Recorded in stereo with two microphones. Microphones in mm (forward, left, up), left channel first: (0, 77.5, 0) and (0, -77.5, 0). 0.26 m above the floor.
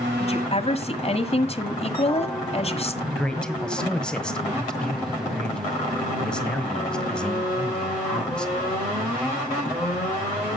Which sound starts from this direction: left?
A woman speaking, at 0.2 s.